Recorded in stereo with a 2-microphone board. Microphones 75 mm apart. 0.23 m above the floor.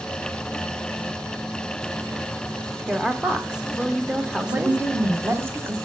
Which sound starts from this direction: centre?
A woman speaking, at 2.9 s.